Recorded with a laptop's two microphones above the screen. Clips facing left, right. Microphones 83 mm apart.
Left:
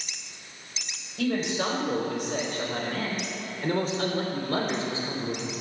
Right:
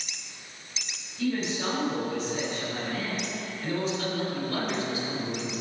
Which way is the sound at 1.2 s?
80° left.